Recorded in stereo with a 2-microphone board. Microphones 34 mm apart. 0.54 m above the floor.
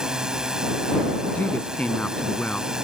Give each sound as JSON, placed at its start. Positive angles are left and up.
{"t": 0.0, "sound": "a drone", "side_deg": -20}
{"t": 1.4, "sound": "a woman speaking", "side_deg": 45}